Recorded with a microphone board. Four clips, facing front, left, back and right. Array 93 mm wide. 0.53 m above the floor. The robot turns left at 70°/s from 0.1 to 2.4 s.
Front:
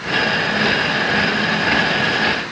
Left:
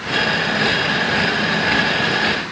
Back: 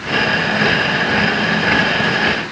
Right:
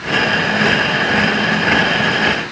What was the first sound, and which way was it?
Only background noise.